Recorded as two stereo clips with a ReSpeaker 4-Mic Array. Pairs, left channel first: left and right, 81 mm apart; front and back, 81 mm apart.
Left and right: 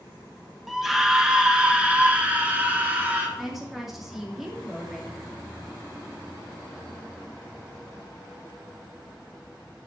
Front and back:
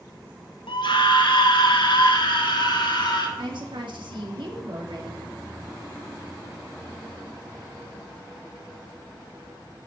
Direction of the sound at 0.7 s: Straight ahead.